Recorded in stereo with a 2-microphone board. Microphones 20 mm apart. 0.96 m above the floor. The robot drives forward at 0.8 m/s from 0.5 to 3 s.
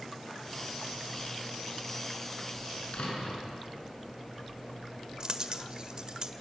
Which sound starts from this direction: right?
A dropped coin, at 5.2 s.